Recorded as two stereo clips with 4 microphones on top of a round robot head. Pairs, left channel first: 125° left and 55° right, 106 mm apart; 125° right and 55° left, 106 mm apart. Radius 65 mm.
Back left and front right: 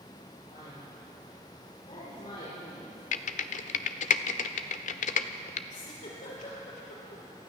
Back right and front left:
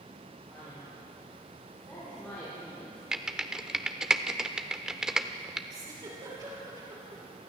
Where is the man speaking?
150° left, 10 m.